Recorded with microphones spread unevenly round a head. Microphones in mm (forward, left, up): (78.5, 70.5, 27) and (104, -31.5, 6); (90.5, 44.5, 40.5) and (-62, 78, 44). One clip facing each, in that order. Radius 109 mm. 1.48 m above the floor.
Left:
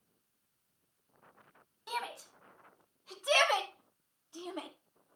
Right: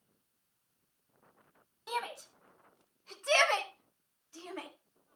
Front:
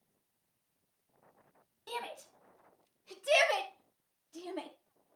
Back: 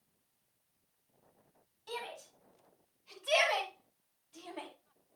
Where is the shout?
15° left, 3.5 m; by 4.7 s 35° left, 2.5 m.